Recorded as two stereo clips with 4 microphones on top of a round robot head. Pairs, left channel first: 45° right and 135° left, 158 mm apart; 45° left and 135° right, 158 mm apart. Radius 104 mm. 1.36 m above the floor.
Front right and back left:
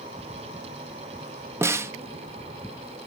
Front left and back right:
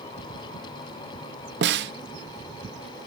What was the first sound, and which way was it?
A snare drum, 150° right.